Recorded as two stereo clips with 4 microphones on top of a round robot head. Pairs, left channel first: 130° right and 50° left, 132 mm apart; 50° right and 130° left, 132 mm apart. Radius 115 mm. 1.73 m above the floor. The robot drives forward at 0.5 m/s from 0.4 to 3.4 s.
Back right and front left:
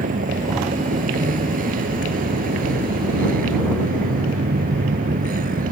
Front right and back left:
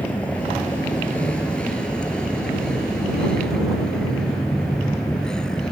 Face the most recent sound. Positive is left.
turn(degrees=35)